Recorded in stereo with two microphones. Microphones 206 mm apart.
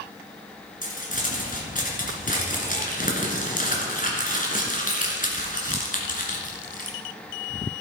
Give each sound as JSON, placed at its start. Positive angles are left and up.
{"t": 0.8, "sound": "crumpling", "side_deg": 40, "distance_m": 2.0}